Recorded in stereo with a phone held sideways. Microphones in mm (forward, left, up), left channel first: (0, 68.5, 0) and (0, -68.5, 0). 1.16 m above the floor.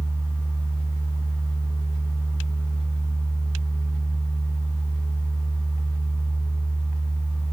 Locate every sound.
0.0 s a fan: 45° left (ahead or behind), 1.6 m